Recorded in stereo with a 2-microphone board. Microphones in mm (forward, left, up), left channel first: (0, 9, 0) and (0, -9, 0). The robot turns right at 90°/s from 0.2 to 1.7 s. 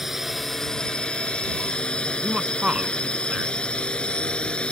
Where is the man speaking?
65° right (ahead or behind).